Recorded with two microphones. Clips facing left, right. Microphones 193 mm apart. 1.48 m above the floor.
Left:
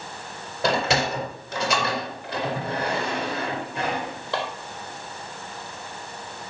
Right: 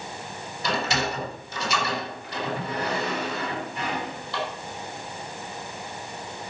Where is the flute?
I don't hear a flute.